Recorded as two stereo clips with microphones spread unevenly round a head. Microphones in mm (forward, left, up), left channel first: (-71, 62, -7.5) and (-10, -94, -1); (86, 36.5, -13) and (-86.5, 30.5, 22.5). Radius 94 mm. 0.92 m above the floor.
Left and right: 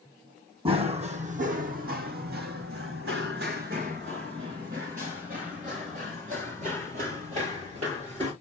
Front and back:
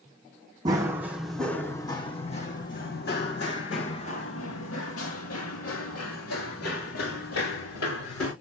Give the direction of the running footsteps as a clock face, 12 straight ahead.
4 o'clock.